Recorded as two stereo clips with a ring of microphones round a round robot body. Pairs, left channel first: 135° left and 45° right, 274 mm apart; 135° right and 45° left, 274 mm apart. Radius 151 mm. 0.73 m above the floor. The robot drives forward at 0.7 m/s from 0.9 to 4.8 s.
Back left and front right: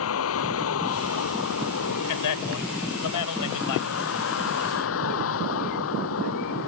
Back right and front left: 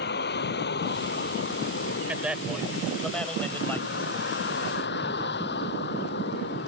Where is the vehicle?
175° left.